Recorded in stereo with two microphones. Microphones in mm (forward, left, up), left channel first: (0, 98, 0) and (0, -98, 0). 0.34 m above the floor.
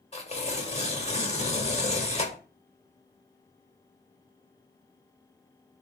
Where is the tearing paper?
35° left (ahead or behind), 1.4 m.